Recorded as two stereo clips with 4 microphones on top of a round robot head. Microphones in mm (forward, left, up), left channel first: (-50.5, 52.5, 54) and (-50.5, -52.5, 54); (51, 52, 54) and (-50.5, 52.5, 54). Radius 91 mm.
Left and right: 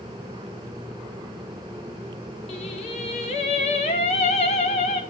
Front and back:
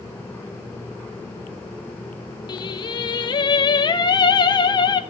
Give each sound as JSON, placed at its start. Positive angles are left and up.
{"t": 2.5, "sound": "singing", "azimuth_deg": 45, "distance_m": 1.4}